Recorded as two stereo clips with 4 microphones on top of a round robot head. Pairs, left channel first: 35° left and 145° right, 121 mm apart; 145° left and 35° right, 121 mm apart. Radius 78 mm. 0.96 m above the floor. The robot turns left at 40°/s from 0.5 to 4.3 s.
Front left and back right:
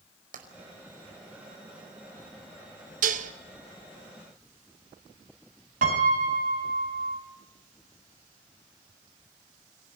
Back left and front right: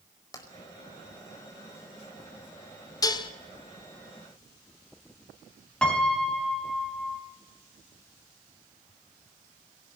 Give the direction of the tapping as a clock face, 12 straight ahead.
5 o'clock.